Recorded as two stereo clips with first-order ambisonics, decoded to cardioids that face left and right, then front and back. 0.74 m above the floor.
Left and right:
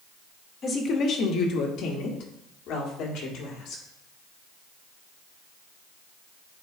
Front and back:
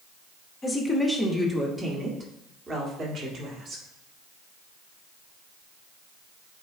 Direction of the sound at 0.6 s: 55° left.